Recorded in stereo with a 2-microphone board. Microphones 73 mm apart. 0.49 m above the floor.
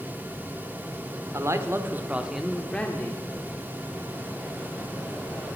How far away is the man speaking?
About 1.4 m.